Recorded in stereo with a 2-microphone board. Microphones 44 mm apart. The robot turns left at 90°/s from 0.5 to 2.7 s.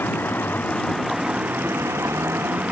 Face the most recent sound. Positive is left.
turn(degrees=-150)